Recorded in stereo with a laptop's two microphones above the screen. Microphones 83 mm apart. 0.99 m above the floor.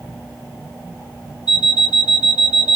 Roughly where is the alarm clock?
Left.